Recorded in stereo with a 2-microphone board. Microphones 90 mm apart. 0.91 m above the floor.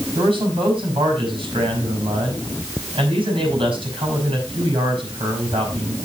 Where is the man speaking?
70° right (ahead or behind), 5.5 m.